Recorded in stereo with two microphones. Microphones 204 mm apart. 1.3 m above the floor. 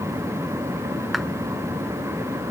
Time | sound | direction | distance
1.1 | a clap | centre (ahead or behind) | ?